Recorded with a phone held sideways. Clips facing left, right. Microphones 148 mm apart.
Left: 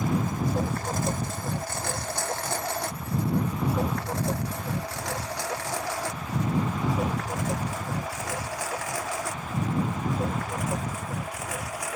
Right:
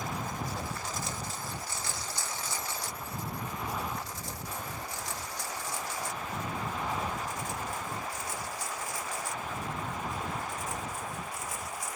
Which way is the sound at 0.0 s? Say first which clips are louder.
Left 9 dB; 50° left (ahead or behind).